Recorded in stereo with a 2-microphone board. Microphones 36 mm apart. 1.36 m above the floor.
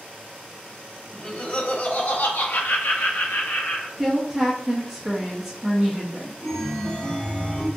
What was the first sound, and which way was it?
Laughter, 30° left (ahead or behind).